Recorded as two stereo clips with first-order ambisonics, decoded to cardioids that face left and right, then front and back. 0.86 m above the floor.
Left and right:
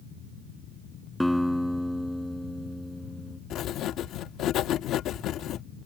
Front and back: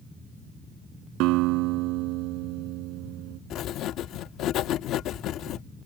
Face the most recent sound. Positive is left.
turn(degrees=45)